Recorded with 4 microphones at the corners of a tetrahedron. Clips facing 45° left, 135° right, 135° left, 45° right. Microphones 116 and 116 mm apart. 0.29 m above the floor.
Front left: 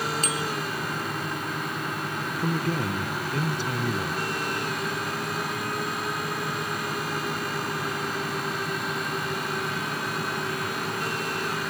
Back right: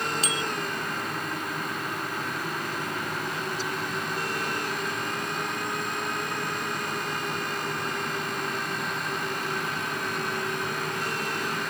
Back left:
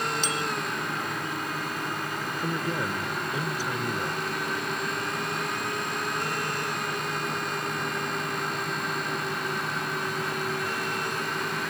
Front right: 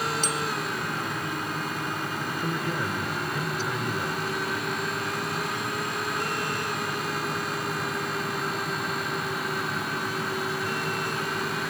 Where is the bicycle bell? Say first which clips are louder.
Front left 1 dB, front right 1 dB; straight ahead.